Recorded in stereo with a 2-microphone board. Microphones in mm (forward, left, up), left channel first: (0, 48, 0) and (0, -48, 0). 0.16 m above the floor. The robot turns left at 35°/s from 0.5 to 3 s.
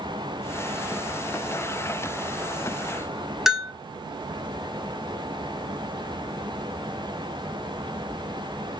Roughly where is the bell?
Centre.